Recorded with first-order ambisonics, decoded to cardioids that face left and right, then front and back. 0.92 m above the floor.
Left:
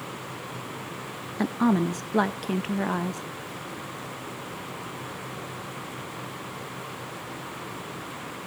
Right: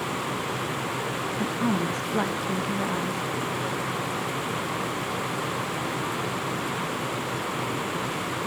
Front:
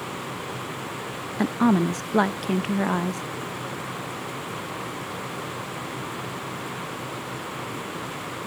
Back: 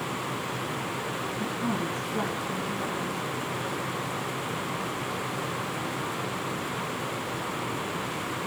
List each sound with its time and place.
1.4 s a woman speaking: 20° left, 0.7 m